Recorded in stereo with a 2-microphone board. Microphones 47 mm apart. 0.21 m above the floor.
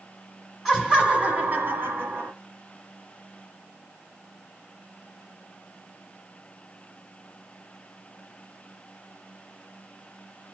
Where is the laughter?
10° right (ahead or behind), 1.3 m; by 2.3 s 50° right (ahead or behind), 1.6 m.